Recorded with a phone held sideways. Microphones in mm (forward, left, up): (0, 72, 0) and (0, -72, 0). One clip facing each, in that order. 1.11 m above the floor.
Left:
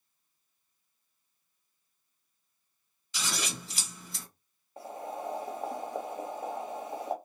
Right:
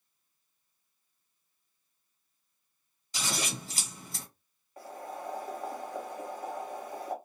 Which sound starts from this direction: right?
Scissors, at 3.1 s.